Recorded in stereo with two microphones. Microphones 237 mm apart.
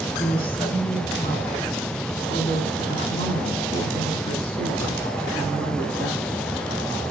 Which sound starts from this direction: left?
A woman speaking, at 0.2 s.